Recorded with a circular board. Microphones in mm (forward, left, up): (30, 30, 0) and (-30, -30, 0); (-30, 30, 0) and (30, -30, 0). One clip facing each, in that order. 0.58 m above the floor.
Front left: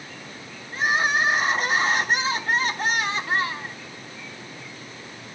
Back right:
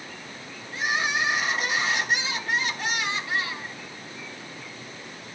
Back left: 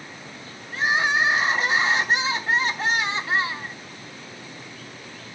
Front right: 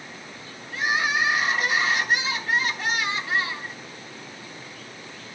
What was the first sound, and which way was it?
Crying, 80° left.